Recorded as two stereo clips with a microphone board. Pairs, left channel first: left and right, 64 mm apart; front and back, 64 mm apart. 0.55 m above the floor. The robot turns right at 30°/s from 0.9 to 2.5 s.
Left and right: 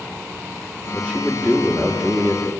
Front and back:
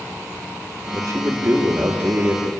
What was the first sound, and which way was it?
A man speaking, 160° left.